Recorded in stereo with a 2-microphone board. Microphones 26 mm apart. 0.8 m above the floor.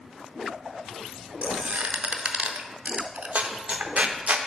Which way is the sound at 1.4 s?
65° right (ahead or behind).